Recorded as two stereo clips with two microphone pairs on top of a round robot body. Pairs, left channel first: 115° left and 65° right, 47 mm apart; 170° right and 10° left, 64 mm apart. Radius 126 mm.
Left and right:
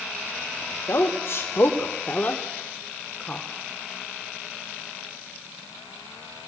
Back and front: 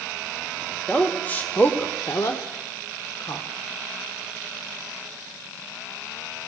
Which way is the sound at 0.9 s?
125° left.